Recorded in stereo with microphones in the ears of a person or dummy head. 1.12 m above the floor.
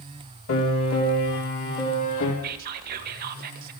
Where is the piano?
70° left (ahead or behind), 3 m.